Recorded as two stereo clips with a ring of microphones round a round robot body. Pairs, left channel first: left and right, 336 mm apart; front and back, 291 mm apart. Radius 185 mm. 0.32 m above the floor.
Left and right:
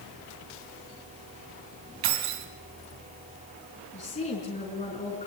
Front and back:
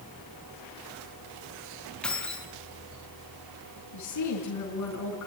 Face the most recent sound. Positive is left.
turn(degrees=20)